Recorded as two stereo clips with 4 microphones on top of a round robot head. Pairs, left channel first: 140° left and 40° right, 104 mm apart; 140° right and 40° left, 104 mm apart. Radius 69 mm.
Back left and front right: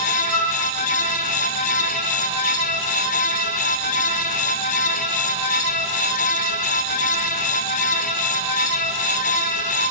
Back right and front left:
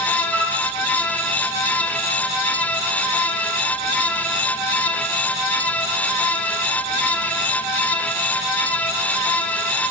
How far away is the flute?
About 7 m.